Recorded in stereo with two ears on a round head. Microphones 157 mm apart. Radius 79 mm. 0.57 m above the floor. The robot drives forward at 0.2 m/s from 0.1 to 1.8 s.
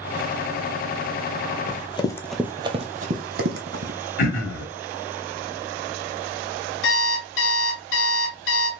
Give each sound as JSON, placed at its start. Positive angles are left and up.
{"t": 1.7, "sound": "running footsteps", "side_deg": 45, "distance_m": 0.7}
{"t": 4.2, "sound": "throat clearing", "side_deg": 50, "distance_m": 1.6}
{"t": 6.8, "sound": "an alarm clock", "side_deg": 75, "distance_m": 1.1}